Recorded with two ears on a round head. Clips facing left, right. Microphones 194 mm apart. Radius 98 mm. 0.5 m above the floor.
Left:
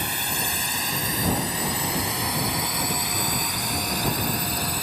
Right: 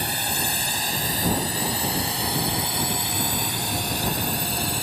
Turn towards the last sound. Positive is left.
turn(degrees=-25)  # may be behind; listen again after turning